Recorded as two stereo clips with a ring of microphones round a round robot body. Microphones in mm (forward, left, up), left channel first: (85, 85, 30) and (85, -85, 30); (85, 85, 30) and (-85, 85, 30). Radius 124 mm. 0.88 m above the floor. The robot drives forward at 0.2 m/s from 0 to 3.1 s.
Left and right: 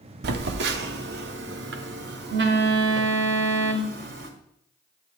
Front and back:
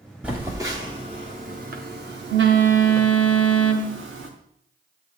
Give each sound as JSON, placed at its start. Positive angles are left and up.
{"t": 0.2, "sound": "a phone buzzing", "azimuth_deg": -95, "distance_m": 0.5}